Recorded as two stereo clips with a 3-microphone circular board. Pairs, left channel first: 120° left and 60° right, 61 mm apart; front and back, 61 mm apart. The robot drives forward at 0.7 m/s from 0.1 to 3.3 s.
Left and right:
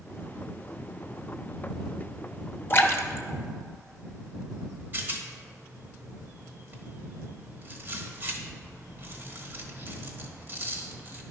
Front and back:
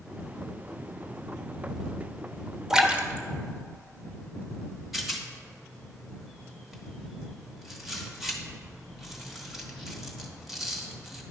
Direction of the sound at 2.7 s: 105° left.